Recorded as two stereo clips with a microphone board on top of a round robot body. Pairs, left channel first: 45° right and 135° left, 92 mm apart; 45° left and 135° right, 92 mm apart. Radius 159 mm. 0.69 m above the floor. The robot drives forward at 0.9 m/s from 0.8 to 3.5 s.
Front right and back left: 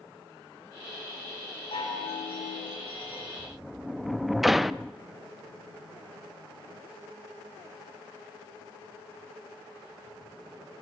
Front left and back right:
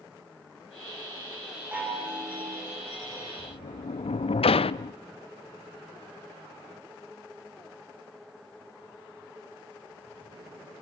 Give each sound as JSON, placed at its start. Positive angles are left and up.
{"t": 1.7, "sound": "a chime", "azimuth_deg": -65, "distance_m": 7.5}
{"t": 3.4, "sound": "a sliding door", "azimuth_deg": 40, "distance_m": 0.5}